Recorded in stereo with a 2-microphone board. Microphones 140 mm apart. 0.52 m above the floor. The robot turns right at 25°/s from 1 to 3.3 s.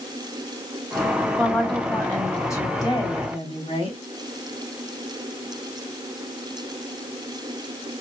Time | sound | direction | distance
1.4 | a woman speaking | 5° right | 3 m